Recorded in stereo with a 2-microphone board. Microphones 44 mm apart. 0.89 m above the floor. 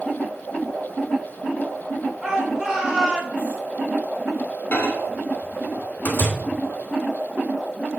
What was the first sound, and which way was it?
A shout, 15° right (ahead or behind).